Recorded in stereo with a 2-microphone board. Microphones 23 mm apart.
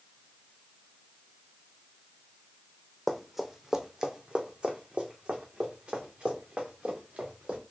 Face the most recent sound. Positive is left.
turn(degrees=-75)  # may be behind; listen again after turning